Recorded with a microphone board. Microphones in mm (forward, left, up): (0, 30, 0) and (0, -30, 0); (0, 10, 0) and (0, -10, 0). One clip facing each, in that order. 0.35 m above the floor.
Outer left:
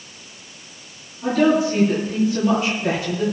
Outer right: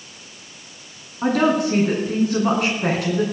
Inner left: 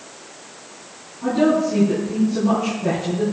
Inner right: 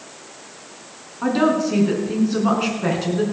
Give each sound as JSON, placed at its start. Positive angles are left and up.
{"t": 1.2, "sound": "a woman speaking", "side_deg": -75, "distance_m": 4.0}